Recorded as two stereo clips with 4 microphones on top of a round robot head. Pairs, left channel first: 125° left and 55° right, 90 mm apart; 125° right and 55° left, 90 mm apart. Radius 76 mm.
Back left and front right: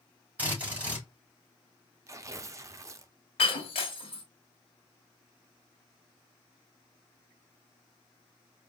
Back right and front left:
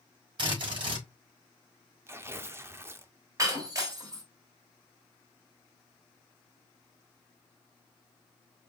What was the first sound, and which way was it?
A drill, 20° left.